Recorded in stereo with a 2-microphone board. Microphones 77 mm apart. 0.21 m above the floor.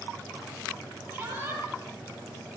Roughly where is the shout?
Centre.